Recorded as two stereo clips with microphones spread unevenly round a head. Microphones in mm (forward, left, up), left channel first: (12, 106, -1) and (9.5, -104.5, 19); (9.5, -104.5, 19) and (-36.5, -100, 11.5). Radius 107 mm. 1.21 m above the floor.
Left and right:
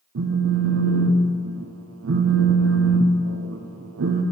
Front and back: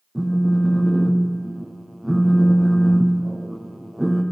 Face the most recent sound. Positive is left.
turn(degrees=-105)